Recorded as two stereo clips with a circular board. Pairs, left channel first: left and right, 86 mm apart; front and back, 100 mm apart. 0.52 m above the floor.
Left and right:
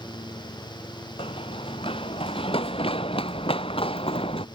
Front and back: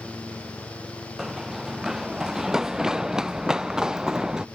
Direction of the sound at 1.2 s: 95° left.